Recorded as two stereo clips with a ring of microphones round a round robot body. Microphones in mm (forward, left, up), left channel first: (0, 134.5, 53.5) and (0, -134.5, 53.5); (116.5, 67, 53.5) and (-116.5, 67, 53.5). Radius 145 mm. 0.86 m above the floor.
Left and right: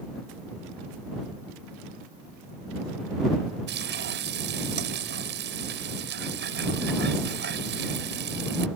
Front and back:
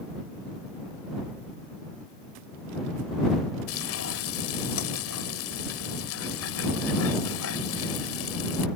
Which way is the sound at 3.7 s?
40° right.